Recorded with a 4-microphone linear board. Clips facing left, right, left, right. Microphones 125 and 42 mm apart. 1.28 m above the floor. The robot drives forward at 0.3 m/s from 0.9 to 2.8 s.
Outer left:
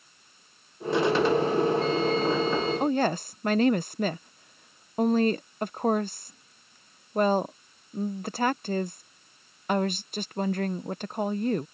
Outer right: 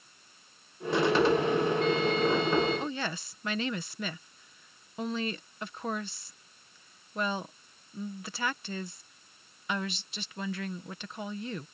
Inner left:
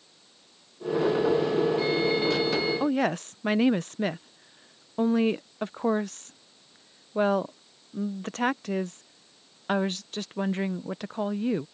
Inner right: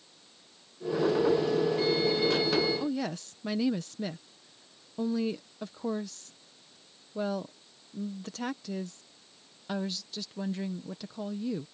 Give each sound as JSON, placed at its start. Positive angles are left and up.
{"t": 2.8, "sound": "a woman speaking", "side_deg": 45}